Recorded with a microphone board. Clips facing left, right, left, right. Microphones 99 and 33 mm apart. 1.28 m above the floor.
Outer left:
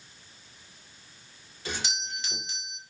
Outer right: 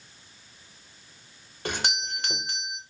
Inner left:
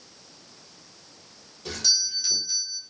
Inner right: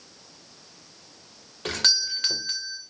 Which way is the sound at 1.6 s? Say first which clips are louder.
Outer right 5 dB, inner right 2 dB; 60° right (ahead or behind).